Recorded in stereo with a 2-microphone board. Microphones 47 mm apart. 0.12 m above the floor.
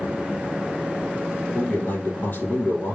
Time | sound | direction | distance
1.5 | a man speaking | 35° left (ahead or behind) | 3.5 m